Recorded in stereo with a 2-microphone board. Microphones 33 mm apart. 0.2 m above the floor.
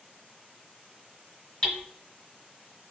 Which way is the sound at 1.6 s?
20° left (ahead or behind).